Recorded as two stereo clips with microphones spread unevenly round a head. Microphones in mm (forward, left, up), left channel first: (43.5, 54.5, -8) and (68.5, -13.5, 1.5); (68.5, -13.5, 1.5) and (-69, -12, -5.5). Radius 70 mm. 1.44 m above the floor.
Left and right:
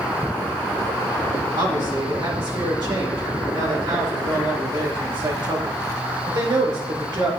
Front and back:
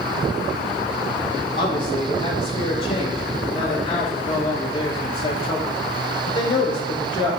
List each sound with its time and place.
1.6 s a man speaking: 50° right, 4 m